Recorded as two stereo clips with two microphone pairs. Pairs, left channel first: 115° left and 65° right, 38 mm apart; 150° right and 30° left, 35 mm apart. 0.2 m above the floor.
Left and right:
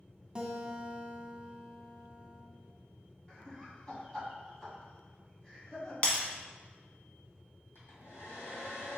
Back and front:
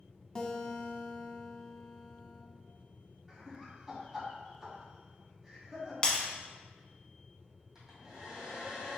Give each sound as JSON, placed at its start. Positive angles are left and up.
{"t": 0.3, "sound": "a guitar", "azimuth_deg": -115, "distance_m": 0.6}
{"t": 3.3, "sound": "laughter", "azimuth_deg": 80, "distance_m": 1.6}
{"t": 6.0, "sound": "breaking glass", "azimuth_deg": 160, "distance_m": 1.1}
{"t": 7.8, "sound": "a hair dryer", "azimuth_deg": 105, "distance_m": 2.0}